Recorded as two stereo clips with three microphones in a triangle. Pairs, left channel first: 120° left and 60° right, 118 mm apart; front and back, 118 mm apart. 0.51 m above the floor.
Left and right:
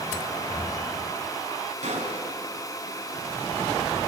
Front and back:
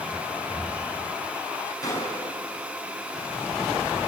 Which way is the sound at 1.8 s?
60° right.